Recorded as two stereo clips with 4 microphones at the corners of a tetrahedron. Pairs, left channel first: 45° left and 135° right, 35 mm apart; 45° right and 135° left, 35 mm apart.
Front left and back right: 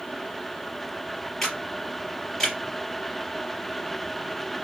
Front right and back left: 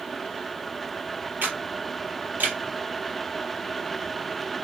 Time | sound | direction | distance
1.4 | a camera shutter | 125° left | 3 m